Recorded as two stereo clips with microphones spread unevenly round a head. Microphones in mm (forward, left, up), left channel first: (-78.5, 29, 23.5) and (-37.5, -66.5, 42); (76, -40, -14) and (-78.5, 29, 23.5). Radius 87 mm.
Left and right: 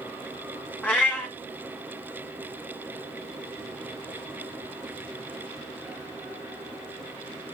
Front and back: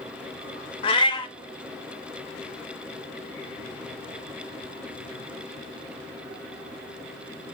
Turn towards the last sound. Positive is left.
turn(degrees=25)